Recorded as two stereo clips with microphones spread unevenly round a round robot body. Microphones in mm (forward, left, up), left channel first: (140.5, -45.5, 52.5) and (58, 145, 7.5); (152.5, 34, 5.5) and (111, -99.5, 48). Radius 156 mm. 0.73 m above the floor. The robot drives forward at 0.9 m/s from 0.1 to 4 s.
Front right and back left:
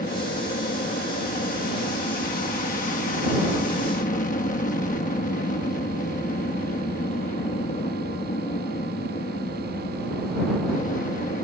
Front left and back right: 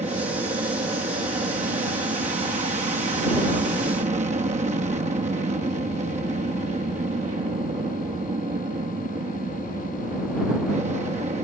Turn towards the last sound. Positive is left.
turn(degrees=-110)